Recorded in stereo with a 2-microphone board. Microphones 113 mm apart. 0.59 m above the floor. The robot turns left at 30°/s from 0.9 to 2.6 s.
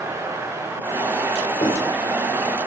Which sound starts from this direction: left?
Writing, at 1.6 s.